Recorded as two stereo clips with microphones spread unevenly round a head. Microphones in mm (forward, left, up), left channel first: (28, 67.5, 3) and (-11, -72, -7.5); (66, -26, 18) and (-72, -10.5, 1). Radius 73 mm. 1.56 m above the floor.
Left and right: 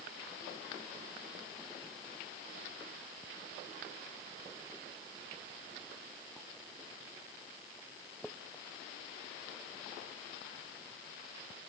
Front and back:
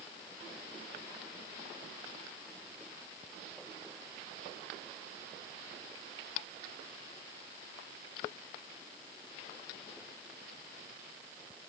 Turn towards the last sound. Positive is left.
No sound to turn to.